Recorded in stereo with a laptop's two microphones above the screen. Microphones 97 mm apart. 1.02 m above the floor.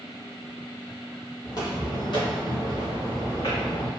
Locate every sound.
1.4 s footsteps: 35° left (ahead or behind), 1.2 m; by 3.9 s 65° left (ahead or behind), 2.5 m